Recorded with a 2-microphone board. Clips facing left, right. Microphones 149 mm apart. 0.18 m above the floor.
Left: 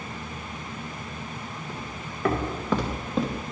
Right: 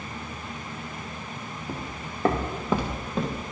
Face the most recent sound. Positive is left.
turn(degrees=5)  # may be behind; listen again after turning